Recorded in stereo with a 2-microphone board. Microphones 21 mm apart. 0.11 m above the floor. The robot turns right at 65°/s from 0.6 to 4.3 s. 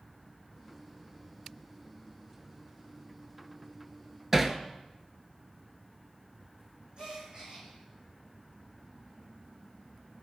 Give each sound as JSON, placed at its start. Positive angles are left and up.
{"t": 4.3, "sound": "hammering", "side_deg": -20, "distance_m": 0.7}
{"t": 7.0, "sound": "a gasp", "side_deg": -45, "distance_m": 3.5}